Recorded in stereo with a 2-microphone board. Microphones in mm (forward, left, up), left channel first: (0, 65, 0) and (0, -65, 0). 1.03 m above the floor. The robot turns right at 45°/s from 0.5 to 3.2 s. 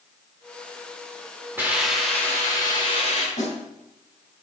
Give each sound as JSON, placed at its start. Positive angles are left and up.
{"t": 1.6, "sound": "a hiss", "azimuth_deg": -15, "distance_m": 4.0}
{"t": 3.4, "sound": "a snare drum", "side_deg": 65, "distance_m": 7.0}